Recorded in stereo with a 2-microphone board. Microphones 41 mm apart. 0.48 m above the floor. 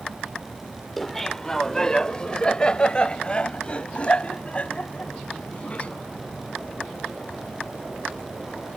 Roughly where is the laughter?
Centre.